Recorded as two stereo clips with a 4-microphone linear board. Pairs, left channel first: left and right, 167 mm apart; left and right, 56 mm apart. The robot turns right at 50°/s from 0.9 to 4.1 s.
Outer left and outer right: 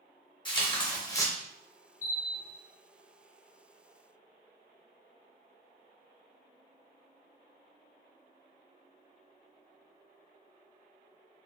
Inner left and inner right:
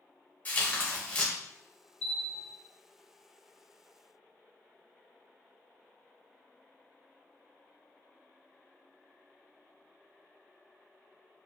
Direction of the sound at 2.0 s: 15° left (ahead or behind).